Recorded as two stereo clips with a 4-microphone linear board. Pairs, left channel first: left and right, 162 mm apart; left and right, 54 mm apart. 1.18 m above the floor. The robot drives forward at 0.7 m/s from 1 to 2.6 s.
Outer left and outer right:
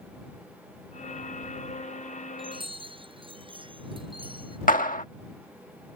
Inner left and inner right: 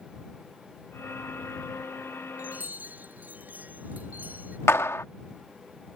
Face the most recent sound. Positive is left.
turn(degrees=60)  # may be behind; listen again after turning